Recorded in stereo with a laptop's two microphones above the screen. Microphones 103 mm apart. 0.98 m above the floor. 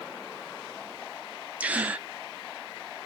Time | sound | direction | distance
1.6 | a gasp | 15° right (ahead or behind) | 0.5 m